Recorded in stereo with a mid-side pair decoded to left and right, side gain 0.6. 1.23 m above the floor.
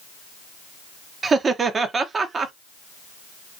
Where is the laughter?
30° right, 0.7 m.